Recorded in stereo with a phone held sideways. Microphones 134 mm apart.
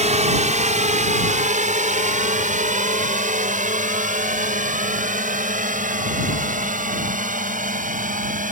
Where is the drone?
60° right (ahead or behind); by 8.5 s 75° right (ahead or behind).